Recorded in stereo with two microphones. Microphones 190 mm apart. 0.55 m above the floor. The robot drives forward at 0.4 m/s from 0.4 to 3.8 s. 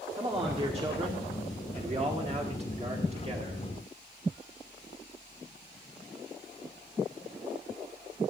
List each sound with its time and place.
0.1 s a man speaking: 30° right (ahead or behind), 1.6 m